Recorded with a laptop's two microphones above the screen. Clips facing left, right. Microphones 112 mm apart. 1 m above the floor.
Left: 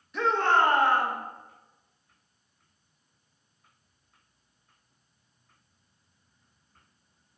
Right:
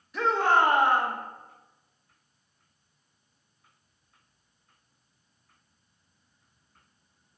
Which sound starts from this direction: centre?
A shout, at 0.1 s.